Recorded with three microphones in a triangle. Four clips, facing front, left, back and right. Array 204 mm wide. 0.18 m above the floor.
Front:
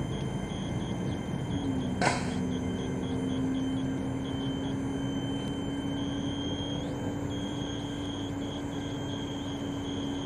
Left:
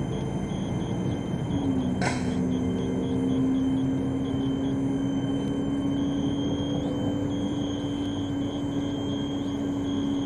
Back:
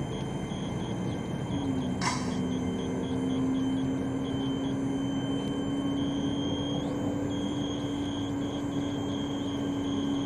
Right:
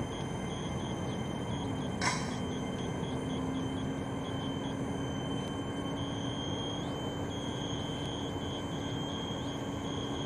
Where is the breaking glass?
30° left.